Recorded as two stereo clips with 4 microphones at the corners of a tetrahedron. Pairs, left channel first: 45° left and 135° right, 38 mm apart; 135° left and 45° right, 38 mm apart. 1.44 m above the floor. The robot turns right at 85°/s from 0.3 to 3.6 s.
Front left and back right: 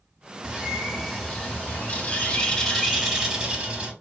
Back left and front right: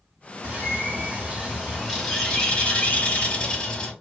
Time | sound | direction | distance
0.4 | a bird | 85° right | 1.0 m